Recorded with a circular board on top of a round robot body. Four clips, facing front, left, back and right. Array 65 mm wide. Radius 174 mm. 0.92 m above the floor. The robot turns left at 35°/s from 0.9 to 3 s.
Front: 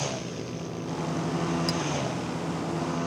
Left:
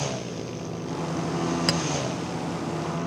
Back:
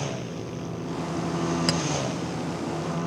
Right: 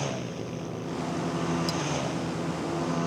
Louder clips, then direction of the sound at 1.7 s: Left 4 dB, back 3 dB; 120° left.